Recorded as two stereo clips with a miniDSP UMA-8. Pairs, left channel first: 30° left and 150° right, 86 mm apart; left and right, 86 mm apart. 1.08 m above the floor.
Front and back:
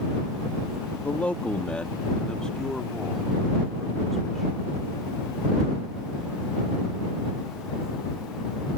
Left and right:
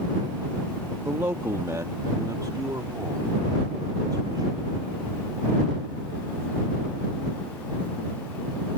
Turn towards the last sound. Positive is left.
turn(degrees=-60)